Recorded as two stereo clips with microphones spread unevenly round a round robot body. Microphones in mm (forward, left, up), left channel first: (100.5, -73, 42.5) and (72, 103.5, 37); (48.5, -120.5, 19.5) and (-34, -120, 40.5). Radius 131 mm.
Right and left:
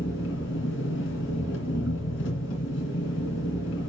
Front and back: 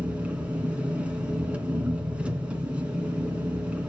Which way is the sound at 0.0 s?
110° right.